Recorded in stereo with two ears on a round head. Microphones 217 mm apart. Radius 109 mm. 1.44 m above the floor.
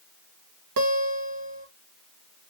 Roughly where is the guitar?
Right.